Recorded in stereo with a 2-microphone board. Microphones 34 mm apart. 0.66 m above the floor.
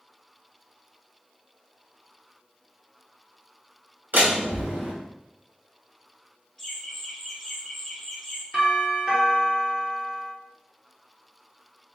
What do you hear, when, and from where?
4.1 s a door slam: 60° right (ahead or behind), 2.5 m
6.6 s laughter: 10° left (ahead or behind), 1.7 m
8.5 s a doorbell: 25° right (ahead or behind), 1.8 m